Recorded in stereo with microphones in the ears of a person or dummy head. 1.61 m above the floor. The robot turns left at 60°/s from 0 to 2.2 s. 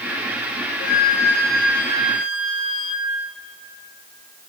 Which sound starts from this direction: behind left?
A flute, at 0.8 s.